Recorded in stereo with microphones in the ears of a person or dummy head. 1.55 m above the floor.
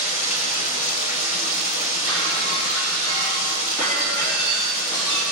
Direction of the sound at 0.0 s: 35° left (ahead or behind).